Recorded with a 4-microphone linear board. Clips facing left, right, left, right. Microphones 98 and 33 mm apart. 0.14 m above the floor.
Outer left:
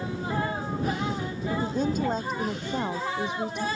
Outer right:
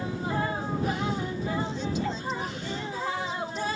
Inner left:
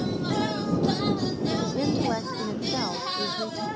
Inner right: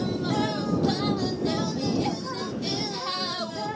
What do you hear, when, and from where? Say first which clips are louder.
1.5 s a woman speaking: outer left 7 dB, inner left 1 dB; 45° left (ahead or behind); by 3.7 s 65° left (ahead or behind)